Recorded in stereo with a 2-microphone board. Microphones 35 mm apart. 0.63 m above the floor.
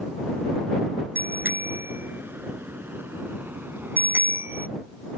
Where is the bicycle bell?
80° right; by 4.7 s 75° right (ahead or behind).